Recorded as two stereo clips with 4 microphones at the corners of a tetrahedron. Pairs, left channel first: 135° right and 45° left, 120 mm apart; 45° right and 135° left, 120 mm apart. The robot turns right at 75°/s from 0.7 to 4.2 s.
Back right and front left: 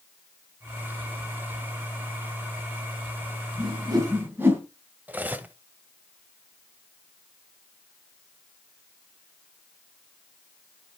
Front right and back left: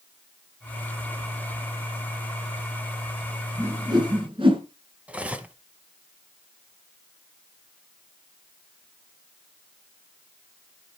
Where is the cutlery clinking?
85° left, 0.8 m.